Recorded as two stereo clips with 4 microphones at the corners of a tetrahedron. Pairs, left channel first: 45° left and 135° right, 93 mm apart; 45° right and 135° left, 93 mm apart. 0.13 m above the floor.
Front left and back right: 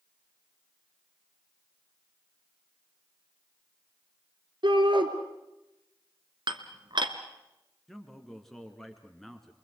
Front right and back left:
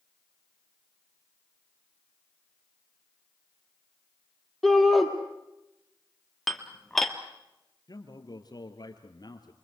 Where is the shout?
135° right, 3 m.